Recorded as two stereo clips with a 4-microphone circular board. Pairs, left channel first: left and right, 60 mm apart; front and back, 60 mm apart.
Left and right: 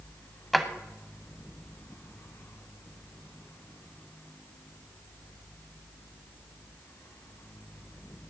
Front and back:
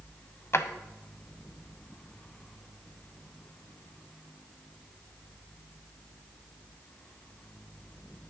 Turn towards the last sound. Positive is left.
turn(degrees=5)